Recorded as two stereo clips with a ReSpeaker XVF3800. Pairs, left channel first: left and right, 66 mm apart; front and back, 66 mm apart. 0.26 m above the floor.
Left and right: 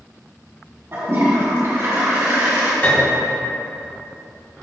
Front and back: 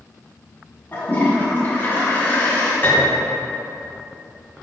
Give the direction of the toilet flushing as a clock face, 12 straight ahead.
2 o'clock.